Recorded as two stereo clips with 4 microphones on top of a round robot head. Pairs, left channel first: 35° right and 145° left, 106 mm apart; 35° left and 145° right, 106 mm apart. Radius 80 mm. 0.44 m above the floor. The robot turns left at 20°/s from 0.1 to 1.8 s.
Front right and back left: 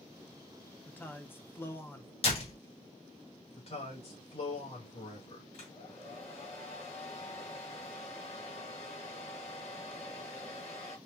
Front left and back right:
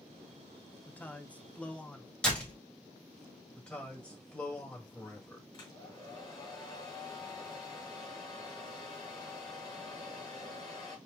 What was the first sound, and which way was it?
A man speaking, 5° right.